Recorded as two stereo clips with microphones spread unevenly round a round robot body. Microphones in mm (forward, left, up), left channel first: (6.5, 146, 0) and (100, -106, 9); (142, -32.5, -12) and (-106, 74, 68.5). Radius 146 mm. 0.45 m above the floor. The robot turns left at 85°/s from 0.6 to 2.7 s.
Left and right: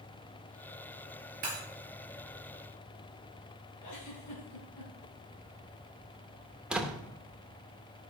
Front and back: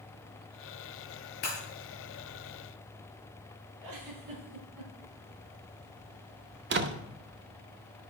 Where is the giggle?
135° left, 2.5 m.